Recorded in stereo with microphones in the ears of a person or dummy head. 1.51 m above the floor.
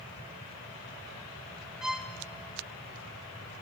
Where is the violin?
5° right (ahead or behind), 0.7 m.